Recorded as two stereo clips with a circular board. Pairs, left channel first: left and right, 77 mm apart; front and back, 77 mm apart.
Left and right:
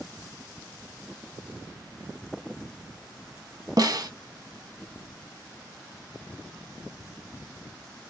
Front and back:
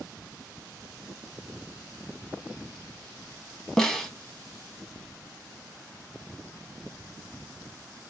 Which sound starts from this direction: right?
A snare drum, at 3.8 s.